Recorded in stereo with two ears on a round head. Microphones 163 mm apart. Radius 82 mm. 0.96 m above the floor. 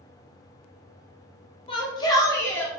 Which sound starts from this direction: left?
A shout, at 1.7 s.